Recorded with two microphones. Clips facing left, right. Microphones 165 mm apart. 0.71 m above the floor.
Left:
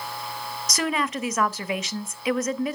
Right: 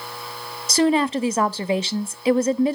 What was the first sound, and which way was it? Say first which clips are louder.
A woman speaking: right 9 dB; 30° right (ahead or behind).